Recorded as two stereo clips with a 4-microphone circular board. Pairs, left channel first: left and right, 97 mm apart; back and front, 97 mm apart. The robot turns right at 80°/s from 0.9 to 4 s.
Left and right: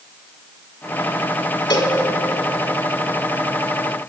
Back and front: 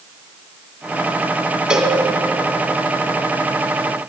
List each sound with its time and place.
1.7 s a cowbell: 80° left, 1.1 m; by 2.0 s 100° left, 1.1 m